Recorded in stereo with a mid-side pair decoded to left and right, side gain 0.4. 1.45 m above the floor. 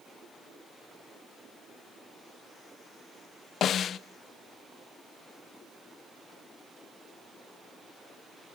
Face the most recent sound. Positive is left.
turn(degrees=65)